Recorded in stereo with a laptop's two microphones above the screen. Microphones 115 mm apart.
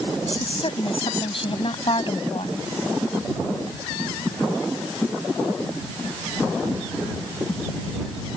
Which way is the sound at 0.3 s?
55° left (ahead or behind).